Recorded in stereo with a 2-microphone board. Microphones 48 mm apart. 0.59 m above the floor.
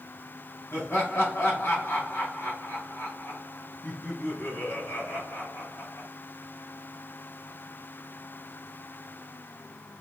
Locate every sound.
0.7 s laughter: 60° left (ahead or behind), 2.5 m